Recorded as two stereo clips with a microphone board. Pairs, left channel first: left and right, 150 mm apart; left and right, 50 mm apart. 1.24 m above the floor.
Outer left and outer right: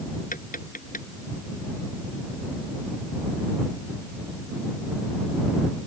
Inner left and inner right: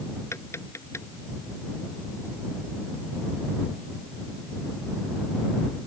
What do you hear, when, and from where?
0.3 s tapping: 70° left (ahead or behind)